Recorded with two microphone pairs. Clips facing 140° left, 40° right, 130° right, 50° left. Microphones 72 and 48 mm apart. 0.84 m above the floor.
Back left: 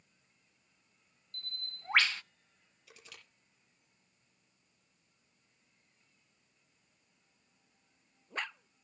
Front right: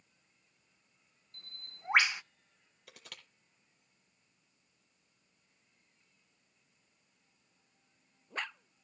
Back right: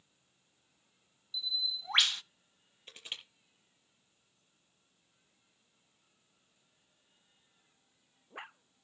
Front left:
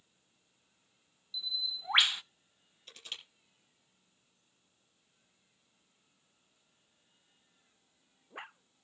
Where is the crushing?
70° right, 6 m.